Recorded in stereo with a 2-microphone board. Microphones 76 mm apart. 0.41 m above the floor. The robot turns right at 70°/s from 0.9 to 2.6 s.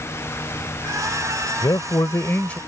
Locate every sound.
1.6 s a man speaking: 90° left; by 2.6 s 160° left